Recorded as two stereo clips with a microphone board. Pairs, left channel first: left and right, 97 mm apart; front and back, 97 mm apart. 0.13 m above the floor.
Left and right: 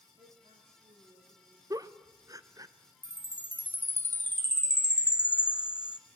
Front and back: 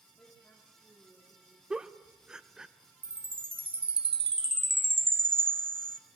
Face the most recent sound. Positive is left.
turn(degrees=160)